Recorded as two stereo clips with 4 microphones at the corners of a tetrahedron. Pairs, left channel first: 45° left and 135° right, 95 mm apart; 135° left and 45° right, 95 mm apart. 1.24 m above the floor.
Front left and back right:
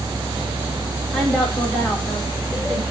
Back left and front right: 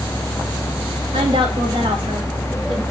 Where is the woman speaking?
40° right, 4 m; by 2.8 s 30° right, 4.5 m.